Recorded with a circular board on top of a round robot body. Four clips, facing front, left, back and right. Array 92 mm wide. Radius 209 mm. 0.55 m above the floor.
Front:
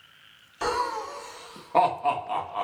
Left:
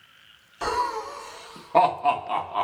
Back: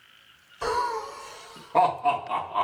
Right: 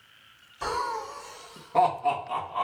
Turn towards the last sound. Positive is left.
turn(degrees=115)